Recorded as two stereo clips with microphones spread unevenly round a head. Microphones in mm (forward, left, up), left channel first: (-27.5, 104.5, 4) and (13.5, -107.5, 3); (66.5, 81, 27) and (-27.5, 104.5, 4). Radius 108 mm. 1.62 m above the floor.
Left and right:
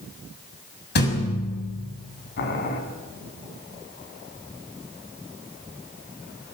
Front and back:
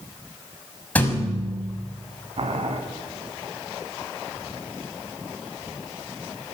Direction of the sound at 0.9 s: 55° left.